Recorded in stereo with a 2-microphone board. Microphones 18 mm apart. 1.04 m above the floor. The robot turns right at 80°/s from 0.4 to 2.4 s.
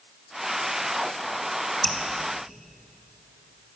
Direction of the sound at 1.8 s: 15° left (ahead or behind).